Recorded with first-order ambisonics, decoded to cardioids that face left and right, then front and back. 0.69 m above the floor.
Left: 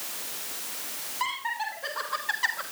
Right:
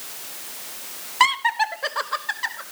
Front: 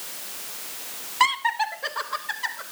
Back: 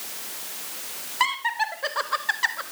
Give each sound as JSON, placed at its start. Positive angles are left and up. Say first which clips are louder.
{"t": 1.2, "sound": "laughter", "louder": "right 12 dB, front 2 dB", "azimuth_deg": -80, "distance_m": 1.7}